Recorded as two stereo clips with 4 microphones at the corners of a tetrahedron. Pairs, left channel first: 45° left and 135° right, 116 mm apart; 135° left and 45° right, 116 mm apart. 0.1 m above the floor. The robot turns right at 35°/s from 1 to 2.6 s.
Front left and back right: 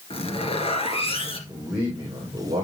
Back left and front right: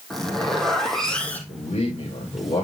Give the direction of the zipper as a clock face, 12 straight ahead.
10 o'clock.